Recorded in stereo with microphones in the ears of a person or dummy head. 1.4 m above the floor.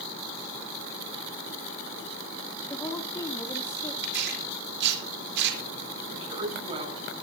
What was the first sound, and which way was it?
A woman speaking, 5° left (ahead or behind).